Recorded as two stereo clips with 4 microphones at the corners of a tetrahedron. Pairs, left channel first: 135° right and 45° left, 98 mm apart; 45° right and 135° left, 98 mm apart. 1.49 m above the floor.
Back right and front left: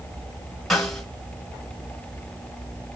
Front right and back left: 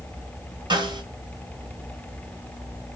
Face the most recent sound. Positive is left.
turn(degrees=140)